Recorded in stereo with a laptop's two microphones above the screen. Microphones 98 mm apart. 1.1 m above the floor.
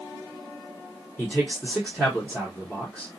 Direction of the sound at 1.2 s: 15° left (ahead or behind).